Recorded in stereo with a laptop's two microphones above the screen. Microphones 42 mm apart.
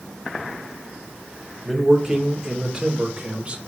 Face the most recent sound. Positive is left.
turn(degrees=-30)  # may be behind; listen again after turning